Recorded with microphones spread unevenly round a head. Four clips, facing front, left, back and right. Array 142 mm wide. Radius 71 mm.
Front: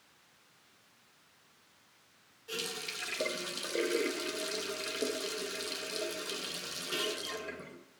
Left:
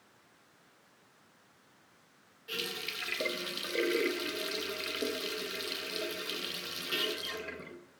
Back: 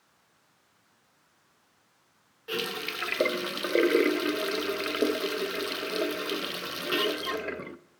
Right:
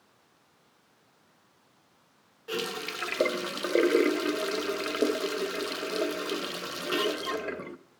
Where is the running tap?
130° right, 0.5 m.